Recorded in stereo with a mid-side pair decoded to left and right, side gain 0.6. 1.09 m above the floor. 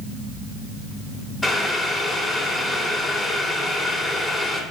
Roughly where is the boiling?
Ahead.